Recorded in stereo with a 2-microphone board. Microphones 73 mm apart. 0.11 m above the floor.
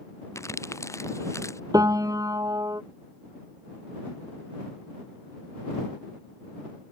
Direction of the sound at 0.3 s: 40° left (ahead or behind).